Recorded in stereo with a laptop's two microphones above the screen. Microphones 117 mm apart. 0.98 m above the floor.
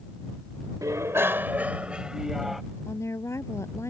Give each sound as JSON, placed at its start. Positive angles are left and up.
{"t": 0.8, "sound": "a bicycle bell", "side_deg": -30}
{"t": 2.9, "sound": "a woman speaking", "side_deg": 25}